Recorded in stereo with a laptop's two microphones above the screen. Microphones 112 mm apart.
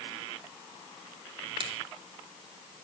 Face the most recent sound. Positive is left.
turn(degrees=-50)  # may be behind; listen again after turning